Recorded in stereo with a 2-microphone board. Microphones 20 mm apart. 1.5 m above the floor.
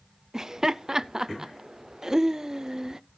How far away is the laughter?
About 0.5 m.